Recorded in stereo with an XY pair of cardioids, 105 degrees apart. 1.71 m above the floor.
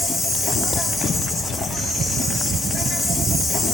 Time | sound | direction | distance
0.0 | an insect | 35° left | 6 m